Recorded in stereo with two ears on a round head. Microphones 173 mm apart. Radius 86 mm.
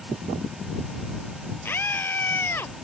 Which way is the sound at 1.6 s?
10° left (ahead or behind).